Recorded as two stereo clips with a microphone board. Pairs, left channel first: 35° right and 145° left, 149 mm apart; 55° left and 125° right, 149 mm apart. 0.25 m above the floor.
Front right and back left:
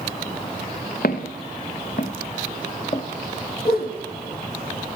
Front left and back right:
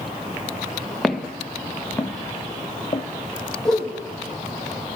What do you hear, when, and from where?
1.0 s footsteps: 35° right, 1.6 m; by 3.0 s 5° left, 1.2 m
3.6 s a whoosh: 30° right, 3 m